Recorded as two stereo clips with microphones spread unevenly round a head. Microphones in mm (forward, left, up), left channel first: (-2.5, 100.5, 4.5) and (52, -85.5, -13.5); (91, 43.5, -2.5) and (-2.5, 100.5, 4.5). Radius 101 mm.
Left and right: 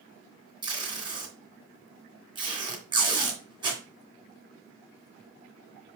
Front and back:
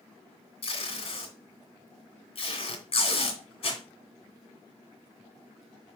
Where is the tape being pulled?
5° right, 2.5 m.